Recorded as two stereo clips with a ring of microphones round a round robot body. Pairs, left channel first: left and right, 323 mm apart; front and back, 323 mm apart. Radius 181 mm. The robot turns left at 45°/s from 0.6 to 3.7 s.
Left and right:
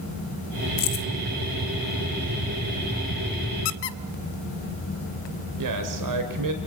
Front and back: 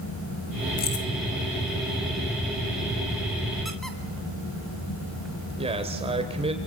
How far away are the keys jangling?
About 0.8 m.